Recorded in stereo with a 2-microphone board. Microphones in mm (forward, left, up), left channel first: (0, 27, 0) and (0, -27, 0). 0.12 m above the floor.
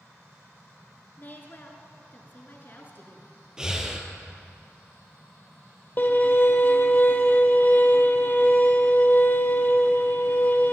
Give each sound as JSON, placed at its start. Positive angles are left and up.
{"t": 1.2, "sound": "a woman speaking", "side_deg": 35, "distance_m": 1.4}
{"t": 3.6, "sound": "breathing", "side_deg": -15, "distance_m": 1.0}
{"t": 6.0, "sound": "a violin", "side_deg": 40, "distance_m": 0.7}